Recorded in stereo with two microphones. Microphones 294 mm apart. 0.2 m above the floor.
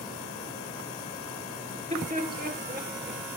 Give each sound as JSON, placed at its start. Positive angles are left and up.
{"t": 1.7, "sound": "laughter", "side_deg": -20, "distance_m": 4.0}